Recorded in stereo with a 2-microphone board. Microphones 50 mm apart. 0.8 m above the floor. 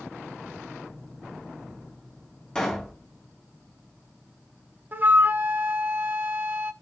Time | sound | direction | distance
2.5 | a pop | 15° left (ahead or behind) | 3 m
4.9 | a flute | 35° right (ahead or behind) | 1.0 m